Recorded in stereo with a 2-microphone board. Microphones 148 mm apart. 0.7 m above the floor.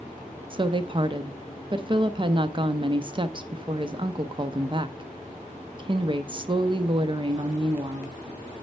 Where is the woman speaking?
35° right (ahead or behind), 0.5 m.